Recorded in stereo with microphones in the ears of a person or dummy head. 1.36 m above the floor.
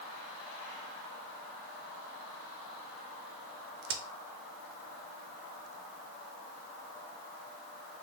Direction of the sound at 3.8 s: 55° right (ahead or behind).